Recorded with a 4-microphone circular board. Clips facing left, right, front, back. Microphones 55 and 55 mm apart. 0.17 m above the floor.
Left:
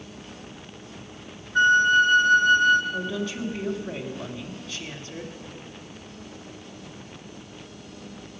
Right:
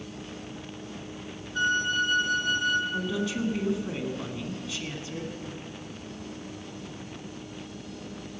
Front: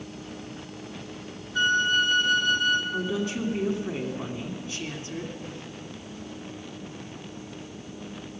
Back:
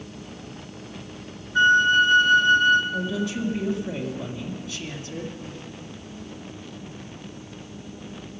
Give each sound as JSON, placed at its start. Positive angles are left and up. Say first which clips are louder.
{"t": 1.6, "sound": "a flute", "louder": "left 9 dB, back 6 dB", "azimuth_deg": 120, "distance_m": 0.8}
{"t": 2.9, "sound": "a woman speaking", "louder": "even, back 1 dB", "azimuth_deg": -15, "distance_m": 1.5}